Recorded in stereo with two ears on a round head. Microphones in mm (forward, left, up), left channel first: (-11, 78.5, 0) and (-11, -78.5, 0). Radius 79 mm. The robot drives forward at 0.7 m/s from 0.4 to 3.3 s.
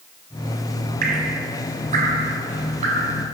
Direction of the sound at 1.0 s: 50° right (ahead or behind).